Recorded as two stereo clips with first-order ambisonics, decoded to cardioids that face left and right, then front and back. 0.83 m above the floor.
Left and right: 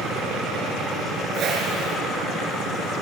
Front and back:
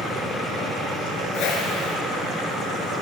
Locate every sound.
1.3 s a whoosh: 40° right, 2.5 m